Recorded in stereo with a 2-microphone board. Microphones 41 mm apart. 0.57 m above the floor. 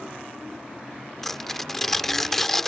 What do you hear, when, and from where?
1.2 s tearing paper: 10° left (ahead or behind)